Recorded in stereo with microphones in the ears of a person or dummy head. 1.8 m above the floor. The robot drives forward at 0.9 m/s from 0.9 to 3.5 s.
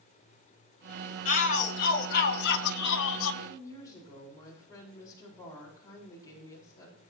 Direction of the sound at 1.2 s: 40° left (ahead or behind).